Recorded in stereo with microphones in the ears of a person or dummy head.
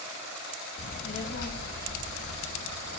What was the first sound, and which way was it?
A child speaking, 30° left (ahead or behind).